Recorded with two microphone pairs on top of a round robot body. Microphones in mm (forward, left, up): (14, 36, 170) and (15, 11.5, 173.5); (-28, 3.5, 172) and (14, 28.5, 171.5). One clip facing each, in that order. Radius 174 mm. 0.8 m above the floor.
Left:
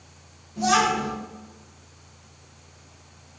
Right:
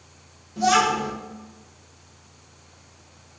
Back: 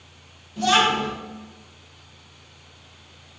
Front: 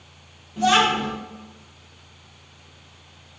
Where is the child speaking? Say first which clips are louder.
Right 1 dB, front 1 dB; 35° right, 1.2 m.